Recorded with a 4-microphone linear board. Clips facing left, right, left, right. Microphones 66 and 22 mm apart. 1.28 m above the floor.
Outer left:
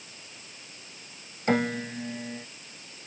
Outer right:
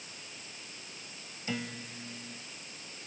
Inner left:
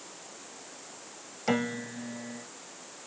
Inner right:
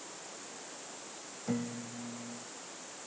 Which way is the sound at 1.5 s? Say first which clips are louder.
Outer left 13 dB, inner left 8 dB; 55° left (ahead or behind).